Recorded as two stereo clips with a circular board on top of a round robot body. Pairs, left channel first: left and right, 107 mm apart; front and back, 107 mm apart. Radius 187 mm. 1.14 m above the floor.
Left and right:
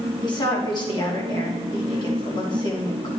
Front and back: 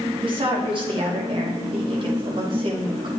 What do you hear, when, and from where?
0.2 s a woman speaking: 140° left, 3 m